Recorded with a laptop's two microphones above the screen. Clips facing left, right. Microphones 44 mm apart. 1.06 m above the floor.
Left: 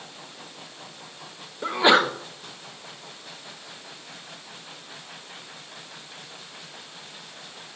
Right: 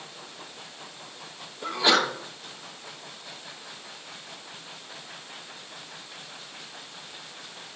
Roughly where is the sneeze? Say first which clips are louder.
Left 4 dB; left.